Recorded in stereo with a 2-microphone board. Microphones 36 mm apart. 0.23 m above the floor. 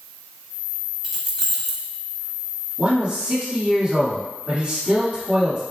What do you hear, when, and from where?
1.0 s keys jangling: 5° right (ahead or behind), 1.1 m
2.8 s a man speaking: 35° right (ahead or behind), 1.8 m